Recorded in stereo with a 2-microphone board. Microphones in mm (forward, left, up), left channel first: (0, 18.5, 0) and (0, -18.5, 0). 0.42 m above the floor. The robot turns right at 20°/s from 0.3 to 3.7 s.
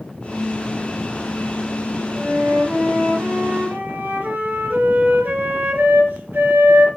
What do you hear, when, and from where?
2.1 s a flute: 95° right, 3 m; by 6.9 s 65° right, 3 m